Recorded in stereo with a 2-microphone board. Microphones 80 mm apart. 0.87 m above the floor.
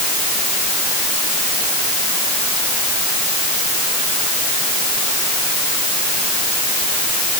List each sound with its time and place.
Only background noise.